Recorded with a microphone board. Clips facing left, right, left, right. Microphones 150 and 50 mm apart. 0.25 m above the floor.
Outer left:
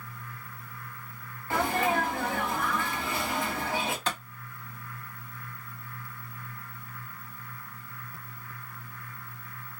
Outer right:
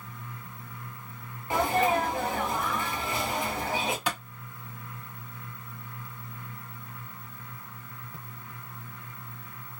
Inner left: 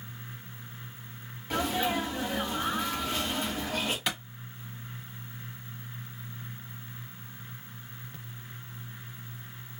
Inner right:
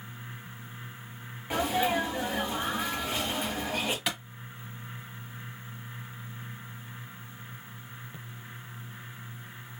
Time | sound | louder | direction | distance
1.5 | a sneeze | outer right 2 dB, inner right 2 dB | 20° right (ahead or behind) | 1.9 m
4.1 | a clap | outer right 1 dB, even | 10° right (ahead or behind) | 1.3 m